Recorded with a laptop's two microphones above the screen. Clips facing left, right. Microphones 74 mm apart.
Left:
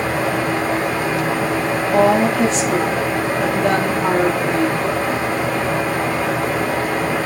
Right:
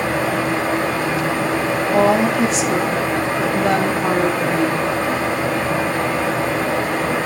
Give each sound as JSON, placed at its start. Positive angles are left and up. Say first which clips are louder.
{"t": 0.0, "sound": "a fan", "louder": "even", "side_deg": -25, "distance_m": 7.5}
{"t": 1.9, "sound": "a woman speaking", "louder": "left 1 dB", "side_deg": 0, "distance_m": 1.9}